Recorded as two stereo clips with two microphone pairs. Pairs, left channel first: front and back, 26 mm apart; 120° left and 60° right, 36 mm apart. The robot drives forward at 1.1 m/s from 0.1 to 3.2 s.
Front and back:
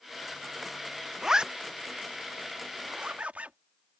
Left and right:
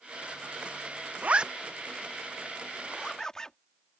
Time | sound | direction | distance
1.2 | a zipper | 105° right | ?